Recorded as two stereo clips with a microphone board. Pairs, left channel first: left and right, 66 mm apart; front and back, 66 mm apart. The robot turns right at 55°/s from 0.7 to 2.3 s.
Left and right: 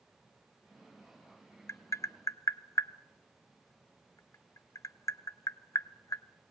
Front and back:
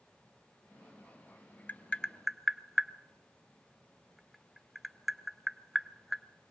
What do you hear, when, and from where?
1.7 s tapping: 60° left, 0.6 m; by 6.2 s 90° left, 0.6 m